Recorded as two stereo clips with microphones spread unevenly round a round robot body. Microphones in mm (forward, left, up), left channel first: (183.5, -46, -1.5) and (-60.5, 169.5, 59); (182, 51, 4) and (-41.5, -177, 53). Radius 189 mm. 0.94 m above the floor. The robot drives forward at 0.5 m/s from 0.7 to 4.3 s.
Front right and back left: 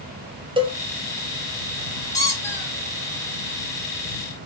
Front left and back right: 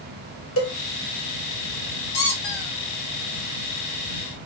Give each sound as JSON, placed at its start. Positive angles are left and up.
{"t": 0.6, "sound": "a cowbell", "azimuth_deg": 55, "distance_m": 1.3}
{"t": 2.1, "sound": "a squeak", "azimuth_deg": 45, "distance_m": 2.0}